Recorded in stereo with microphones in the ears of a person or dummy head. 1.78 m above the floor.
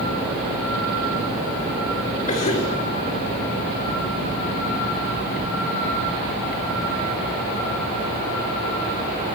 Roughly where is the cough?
Left.